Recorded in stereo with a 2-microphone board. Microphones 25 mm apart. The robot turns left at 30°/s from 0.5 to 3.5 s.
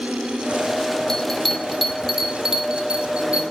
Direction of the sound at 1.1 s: 15° left (ahead or behind).